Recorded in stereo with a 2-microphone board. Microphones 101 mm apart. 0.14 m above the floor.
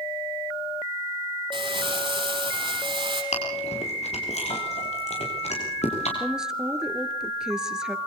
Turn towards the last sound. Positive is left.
turn(degrees=-5)  # may be behind; listen again after turning